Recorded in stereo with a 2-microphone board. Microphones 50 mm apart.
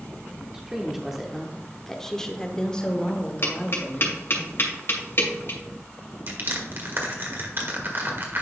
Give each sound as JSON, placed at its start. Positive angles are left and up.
{"t": 0.5, "sound": "a woman speaking", "side_deg": -10, "distance_m": 1.0}
{"t": 3.4, "sound": "tapping", "side_deg": 55, "distance_m": 2.5}
{"t": 6.3, "sound": "crushing", "side_deg": -50, "distance_m": 1.6}